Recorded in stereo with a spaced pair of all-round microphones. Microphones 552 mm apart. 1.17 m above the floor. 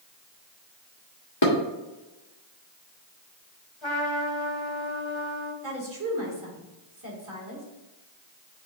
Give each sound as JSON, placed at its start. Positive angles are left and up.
{"t": 1.4, "sound": "dishes clattering", "side_deg": 55, "distance_m": 1.7}
{"t": 3.8, "sound": "a trumpet", "side_deg": 60, "distance_m": 1.6}
{"t": 5.6, "sound": "a woman speaking", "side_deg": -35, "distance_m": 3.0}